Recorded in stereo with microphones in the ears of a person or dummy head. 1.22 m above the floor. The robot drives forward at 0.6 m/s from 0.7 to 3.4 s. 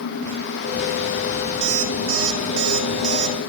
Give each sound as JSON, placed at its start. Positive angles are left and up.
{"t": 1.6, "sound": "an alarm clock", "side_deg": -65, "distance_m": 2.0}